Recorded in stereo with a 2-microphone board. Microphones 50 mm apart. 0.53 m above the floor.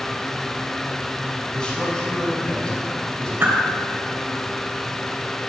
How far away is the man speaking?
About 3.5 m.